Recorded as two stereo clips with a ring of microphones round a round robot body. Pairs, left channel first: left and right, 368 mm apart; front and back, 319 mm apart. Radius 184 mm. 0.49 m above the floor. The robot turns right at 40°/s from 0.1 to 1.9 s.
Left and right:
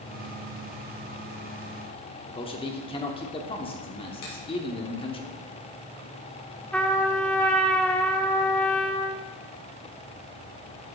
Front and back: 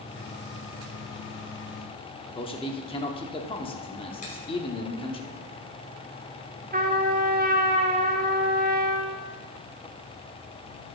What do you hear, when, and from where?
2.3 s a man speaking: 40° left, 0.9 m
4.2 s a finger snap: 65° left, 4.5 m
6.7 s a trumpet: 170° left, 1.1 m